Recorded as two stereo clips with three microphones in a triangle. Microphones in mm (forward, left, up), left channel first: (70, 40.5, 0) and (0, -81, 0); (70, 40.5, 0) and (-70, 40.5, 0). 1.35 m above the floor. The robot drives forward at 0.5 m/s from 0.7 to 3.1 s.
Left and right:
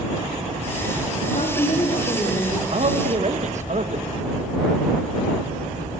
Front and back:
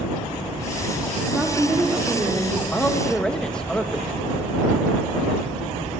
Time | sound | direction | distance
1.3 | a woman speaking | 95° left | 3 m
2.7 | a man speaking | 80° right | 1.6 m